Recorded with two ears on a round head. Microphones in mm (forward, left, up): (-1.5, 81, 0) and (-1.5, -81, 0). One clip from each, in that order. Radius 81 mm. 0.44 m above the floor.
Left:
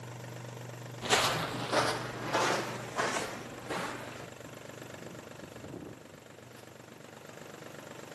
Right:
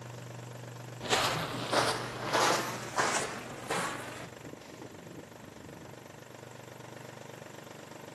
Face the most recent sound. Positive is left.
turn(degrees=-35)  # may be behind; listen again after turning